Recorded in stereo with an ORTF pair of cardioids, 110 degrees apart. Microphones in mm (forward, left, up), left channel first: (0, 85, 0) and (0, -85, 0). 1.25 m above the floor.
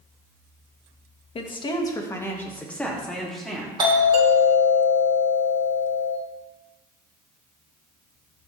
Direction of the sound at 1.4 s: 35° left.